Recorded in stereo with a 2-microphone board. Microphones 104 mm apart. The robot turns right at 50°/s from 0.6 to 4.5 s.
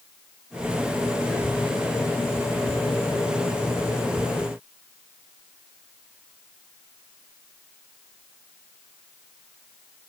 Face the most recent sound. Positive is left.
No sound to turn to.